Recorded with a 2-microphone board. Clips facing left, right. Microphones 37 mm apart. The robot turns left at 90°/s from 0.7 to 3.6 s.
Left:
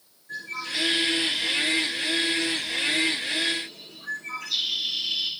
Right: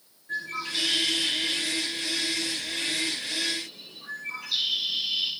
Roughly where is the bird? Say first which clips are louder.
Right 1 dB; centre.